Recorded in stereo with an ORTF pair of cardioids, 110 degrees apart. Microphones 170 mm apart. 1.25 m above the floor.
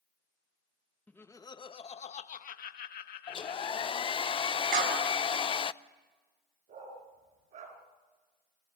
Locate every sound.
1.1 s laughter: 10° left, 1.2 m; by 4.3 s 75° left, 2.5 m
3.3 s a hair dryer: 30° left, 0.6 m
4.7 s a clap: 60° right, 6.5 m
6.7 s a dog barking: 55° right, 5.5 m